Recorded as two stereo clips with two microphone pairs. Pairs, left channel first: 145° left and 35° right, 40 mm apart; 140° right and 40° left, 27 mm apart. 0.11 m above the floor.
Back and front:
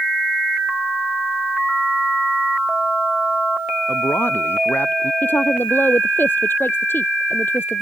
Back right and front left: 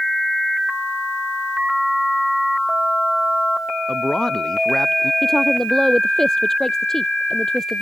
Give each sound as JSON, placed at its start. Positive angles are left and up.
{"t": 3.9, "sound": "a man speaking", "azimuth_deg": 155}
{"t": 5.2, "sound": "a woman speaking", "azimuth_deg": 150}